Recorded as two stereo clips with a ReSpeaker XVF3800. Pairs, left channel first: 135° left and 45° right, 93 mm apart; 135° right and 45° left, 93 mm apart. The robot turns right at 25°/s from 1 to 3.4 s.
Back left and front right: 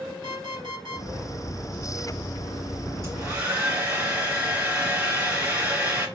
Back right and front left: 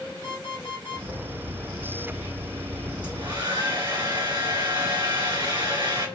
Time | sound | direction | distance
0.2 | an alarm clock | 10° right | 2.5 m
3.0 | a hair dryer | 15° left | 3 m